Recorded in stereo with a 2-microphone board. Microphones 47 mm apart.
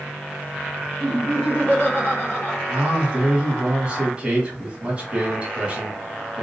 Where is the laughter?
35° left (ahead or behind), 1.9 m.